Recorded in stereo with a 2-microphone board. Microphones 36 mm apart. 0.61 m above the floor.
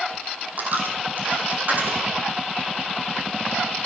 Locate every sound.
0.6 s a dropped coin: 50° right (ahead or behind), 1.9 m